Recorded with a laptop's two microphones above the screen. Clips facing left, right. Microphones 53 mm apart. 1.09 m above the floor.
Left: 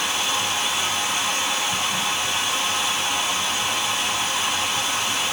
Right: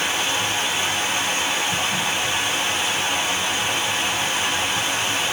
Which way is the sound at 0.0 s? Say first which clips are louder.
Right 1 dB; 25° right (ahead or behind).